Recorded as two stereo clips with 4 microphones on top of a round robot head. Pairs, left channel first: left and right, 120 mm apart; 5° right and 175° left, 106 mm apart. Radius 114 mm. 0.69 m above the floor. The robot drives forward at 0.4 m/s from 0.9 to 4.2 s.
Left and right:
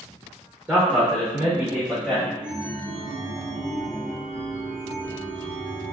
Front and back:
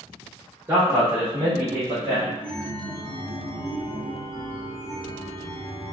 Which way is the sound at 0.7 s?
145° right.